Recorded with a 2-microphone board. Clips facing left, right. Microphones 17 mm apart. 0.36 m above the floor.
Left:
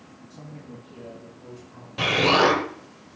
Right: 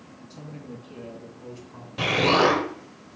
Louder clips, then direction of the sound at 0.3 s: Right 2 dB; 65° right (ahead or behind).